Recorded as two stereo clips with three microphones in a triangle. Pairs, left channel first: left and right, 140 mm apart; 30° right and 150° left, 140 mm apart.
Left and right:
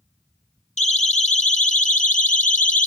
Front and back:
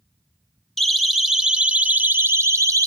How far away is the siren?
About 2.5 m.